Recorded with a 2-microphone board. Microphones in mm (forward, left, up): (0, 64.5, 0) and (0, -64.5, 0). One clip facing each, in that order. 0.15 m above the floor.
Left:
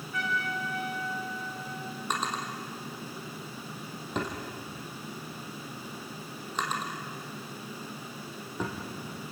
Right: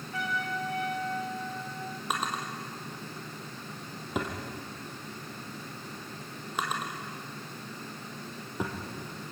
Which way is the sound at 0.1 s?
30° right (ahead or behind).